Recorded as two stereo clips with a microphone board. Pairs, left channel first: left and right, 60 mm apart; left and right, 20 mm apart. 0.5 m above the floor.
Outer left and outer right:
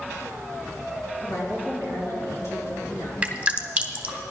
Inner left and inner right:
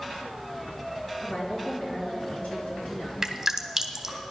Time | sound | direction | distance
1.2 | a woman speaking | 70° left (ahead or behind) | 4.5 m
3.2 | dripping | 25° right (ahead or behind) | 1.1 m